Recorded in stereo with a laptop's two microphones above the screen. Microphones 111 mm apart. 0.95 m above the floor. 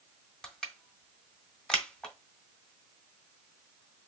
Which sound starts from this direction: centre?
Crushing, at 0.4 s.